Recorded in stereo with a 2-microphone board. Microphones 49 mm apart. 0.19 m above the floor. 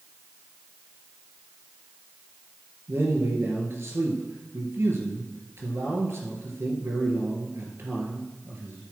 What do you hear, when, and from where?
2.9 s a man speaking: 60° right (ahead or behind), 3.5 m